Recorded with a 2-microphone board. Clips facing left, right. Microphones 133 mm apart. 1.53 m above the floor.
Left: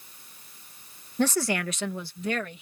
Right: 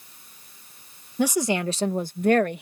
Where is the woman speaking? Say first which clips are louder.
Right 3 dB; 10° right (ahead or behind); by 2.6 s 65° right (ahead or behind).